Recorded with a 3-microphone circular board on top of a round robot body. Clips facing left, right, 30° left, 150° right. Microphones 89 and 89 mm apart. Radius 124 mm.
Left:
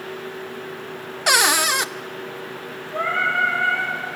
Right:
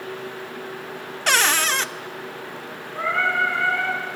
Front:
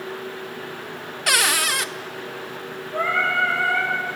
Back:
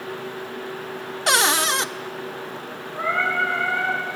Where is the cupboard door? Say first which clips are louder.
Left 2 dB, back 2 dB; 160° left, 0.6 m.